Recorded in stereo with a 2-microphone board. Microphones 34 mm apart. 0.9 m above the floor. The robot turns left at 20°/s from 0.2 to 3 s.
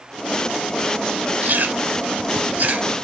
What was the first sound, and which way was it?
Chewing, 60° right (ahead or behind).